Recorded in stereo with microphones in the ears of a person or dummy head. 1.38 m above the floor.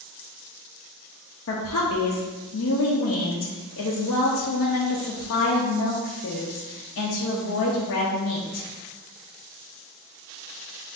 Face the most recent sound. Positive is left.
turn(degrees=60)  # may be behind; listen again after turning